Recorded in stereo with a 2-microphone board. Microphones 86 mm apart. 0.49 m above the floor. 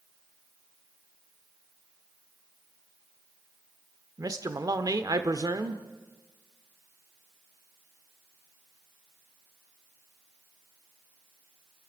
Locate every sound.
4.2 s a man speaking: 45° right (ahead or behind), 1.0 m